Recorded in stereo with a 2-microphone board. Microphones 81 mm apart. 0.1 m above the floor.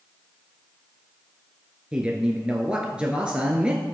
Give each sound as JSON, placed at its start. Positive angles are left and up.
{"t": 1.9, "sound": "a man speaking", "side_deg": -15, "distance_m": 1.3}